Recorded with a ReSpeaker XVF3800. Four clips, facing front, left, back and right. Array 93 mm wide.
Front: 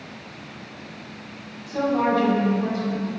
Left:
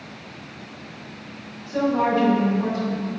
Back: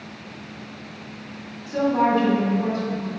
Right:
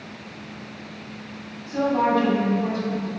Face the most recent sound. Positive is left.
turn(degrees=100)